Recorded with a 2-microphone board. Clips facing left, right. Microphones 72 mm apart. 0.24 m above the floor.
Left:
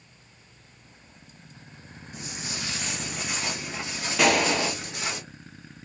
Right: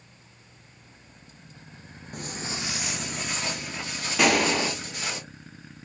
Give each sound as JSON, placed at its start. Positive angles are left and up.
{"t": 2.1, "sound": "footsteps", "side_deg": -55, "distance_m": 0.7}
{"t": 4.2, "sound": "a gunshot", "side_deg": 0, "distance_m": 0.8}